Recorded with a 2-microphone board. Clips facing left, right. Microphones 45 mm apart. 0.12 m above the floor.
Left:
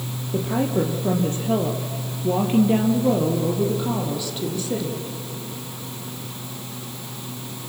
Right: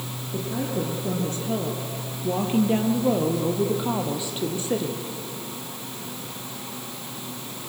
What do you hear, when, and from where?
0.3 s a woman speaking: 55° left (ahead or behind), 3 m; by 5.0 s 30° right (ahead or behind), 4 m